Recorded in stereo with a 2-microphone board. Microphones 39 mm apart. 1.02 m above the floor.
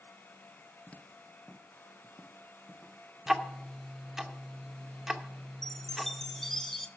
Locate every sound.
0.9 s footsteps: 25° left (ahead or behind), 1.0 m; by 3.0 s 50° left (ahead or behind), 3 m
3.3 s ticking: 10° right (ahead or behind), 0.7 m
5.6 s a chime: 5° left (ahead or behind), 0.6 m